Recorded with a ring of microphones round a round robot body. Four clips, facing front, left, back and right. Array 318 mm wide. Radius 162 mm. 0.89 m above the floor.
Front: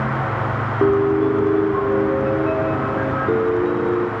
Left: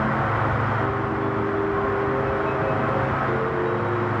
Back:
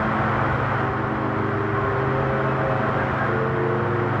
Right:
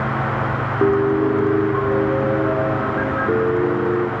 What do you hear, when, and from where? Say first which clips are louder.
0.8 s a piano: right 8 dB, front 9 dB; 45° right, 0.7 m